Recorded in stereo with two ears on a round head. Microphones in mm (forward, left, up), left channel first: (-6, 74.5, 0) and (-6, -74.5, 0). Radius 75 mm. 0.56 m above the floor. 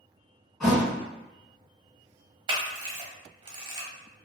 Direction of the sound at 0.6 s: Centre (ahead or behind).